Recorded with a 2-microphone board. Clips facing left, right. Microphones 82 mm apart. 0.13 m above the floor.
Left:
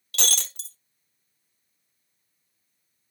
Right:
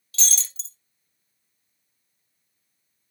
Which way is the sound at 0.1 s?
60° left (ahead or behind).